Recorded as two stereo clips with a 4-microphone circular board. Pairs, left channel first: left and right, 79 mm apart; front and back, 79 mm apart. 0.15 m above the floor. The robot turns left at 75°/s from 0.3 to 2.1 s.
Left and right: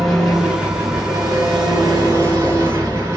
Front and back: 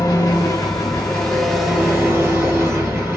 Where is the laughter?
No laughter in this recording.